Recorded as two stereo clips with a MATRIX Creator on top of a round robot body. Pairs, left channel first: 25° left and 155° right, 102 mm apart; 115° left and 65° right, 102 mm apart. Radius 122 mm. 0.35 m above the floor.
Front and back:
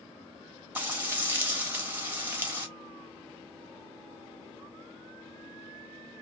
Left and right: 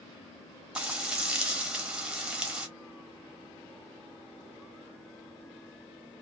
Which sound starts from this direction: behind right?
Frying, at 0.8 s.